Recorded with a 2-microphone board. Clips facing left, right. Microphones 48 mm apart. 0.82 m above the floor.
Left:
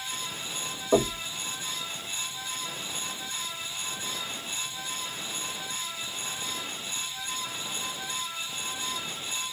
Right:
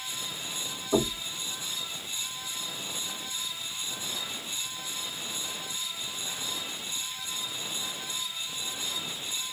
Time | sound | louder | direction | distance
0.9 | knocking | left 3 dB | 60° left (ahead or behind) | 1.7 m